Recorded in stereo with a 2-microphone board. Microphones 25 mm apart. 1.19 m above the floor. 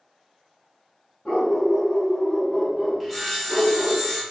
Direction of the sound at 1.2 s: 50° left (ahead or behind).